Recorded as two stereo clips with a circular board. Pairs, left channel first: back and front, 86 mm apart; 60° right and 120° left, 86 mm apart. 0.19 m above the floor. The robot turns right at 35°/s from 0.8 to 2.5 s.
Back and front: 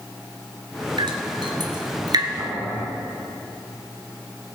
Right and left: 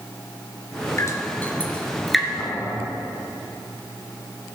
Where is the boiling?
45° right, 1.8 m; by 2.9 s 40° right, 1.8 m.